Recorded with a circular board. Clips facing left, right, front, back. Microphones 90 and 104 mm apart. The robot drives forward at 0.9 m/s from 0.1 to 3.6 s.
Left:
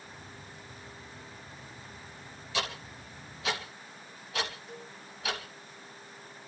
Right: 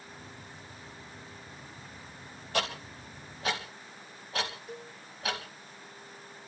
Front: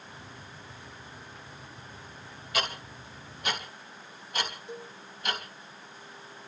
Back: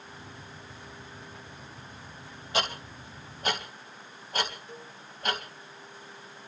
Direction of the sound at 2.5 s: 120° right.